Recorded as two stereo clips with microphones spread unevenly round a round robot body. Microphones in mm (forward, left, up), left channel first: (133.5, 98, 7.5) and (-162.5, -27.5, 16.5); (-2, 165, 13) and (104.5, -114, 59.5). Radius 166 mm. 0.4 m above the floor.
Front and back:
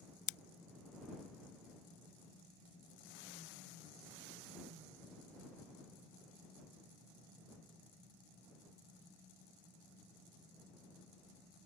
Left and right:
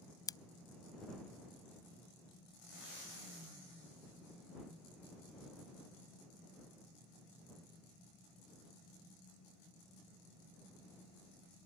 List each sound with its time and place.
0.3 s scissors: 30° left